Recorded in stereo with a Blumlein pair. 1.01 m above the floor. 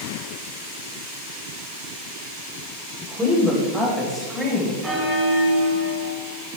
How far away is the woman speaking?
About 4.5 m.